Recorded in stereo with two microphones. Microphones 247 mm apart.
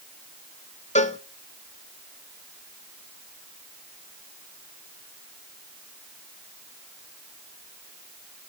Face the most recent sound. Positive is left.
turn(degrees=30)  # may be behind; listen again after turning